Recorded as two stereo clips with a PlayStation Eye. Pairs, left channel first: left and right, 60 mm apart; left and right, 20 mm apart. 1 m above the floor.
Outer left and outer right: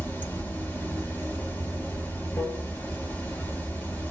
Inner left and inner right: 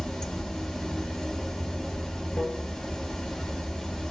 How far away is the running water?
About 1.0 m.